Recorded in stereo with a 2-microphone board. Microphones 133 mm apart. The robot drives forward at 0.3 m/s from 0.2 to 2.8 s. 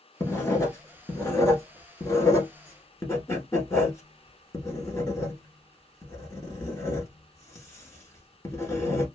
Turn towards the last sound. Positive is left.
turn(degrees=25)  # may be behind; listen again after turning